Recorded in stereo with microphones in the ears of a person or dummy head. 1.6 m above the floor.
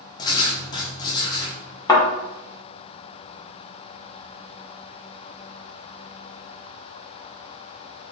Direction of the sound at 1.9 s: 25° left (ahead or behind).